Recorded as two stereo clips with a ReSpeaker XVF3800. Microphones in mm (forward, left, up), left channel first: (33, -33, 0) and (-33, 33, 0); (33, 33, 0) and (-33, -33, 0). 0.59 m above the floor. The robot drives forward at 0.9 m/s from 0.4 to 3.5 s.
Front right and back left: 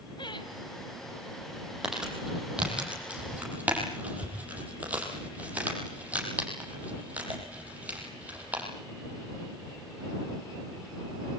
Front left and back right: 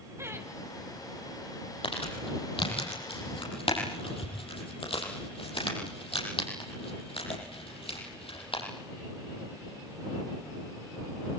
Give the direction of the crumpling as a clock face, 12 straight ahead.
10 o'clock.